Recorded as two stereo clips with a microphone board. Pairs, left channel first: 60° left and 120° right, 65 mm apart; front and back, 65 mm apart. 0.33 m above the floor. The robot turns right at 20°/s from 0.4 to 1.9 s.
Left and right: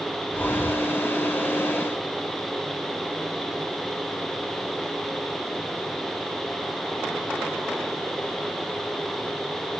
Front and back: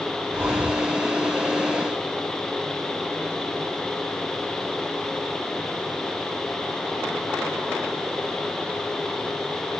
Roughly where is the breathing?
Behind left.